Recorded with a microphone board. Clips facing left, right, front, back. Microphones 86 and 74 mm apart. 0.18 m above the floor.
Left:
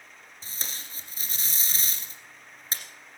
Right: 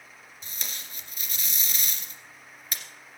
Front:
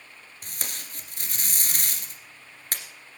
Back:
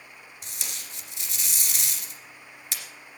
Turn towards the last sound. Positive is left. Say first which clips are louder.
# left 1 dB, front 3 dB
turn(degrees=40)